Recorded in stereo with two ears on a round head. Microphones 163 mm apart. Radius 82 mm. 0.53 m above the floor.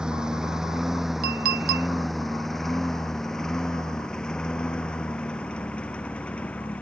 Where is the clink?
55° right (ahead or behind).